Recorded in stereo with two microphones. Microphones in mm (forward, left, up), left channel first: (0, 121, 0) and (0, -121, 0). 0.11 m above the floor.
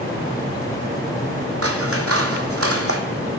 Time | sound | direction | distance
1.6 | scissors | 75° right (ahead or behind) | 1.1 m